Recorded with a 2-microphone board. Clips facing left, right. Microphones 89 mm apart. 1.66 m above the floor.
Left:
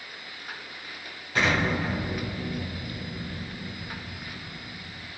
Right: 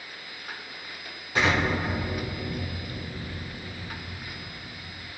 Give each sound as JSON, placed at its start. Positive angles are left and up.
{"t": 1.4, "sound": "an explosion", "side_deg": -15, "distance_m": 3.0}